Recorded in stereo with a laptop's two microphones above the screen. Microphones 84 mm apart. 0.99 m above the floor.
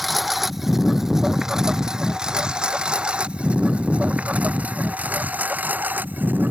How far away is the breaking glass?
No breaking glass in this recording.